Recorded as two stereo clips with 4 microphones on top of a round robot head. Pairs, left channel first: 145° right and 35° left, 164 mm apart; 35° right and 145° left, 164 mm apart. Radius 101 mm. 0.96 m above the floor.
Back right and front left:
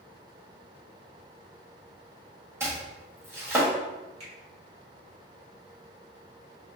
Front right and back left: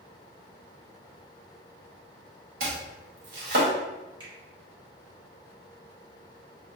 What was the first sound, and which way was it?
Chopping, 110° left.